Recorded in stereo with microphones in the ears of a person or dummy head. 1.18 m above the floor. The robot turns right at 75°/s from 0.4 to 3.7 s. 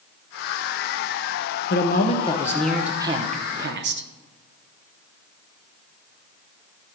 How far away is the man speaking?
About 0.7 m.